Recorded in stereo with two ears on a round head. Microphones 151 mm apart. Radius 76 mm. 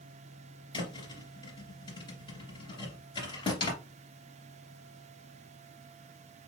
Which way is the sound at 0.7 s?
25° left (ahead or behind).